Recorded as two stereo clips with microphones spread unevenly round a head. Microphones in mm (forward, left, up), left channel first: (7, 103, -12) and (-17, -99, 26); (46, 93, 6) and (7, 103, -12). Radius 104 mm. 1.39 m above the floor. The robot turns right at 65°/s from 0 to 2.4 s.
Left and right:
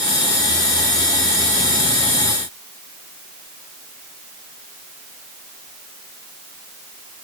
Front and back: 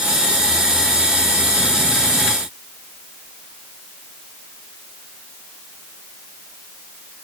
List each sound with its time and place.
Only background noise.